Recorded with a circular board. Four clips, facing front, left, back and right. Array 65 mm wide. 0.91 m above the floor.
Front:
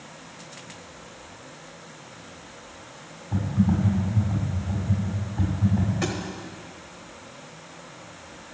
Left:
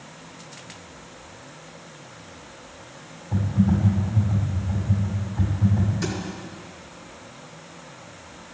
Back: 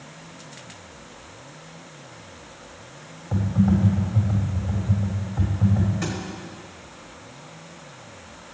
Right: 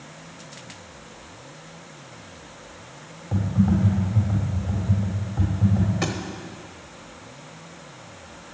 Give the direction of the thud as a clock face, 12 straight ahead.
2 o'clock.